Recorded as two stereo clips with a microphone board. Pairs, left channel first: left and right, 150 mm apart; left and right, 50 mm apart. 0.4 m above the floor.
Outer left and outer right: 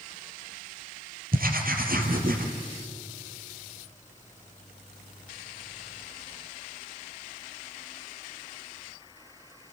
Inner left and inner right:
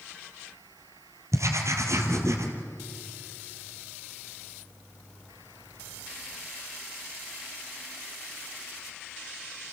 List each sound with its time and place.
1.3 s writing: 75° right (ahead or behind), 2.5 m